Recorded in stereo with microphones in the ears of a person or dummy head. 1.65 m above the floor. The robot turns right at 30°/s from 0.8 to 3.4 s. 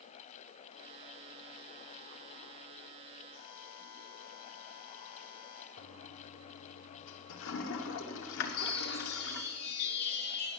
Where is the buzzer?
70° left (ahead or behind), 1.7 m.